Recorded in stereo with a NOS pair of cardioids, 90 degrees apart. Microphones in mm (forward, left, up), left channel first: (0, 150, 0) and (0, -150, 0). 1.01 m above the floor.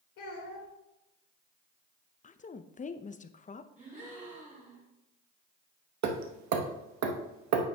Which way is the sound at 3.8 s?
25° right.